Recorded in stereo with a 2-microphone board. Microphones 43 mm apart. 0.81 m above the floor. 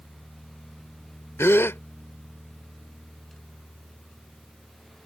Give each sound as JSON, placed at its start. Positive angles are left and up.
{"t": 1.4, "sound": "a gasp", "side_deg": 80}